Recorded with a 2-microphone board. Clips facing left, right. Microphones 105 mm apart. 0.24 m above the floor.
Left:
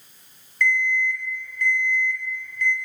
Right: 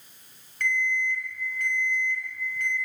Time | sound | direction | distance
0.6 | an alarm clock | 50° right (ahead or behind) | 0.8 m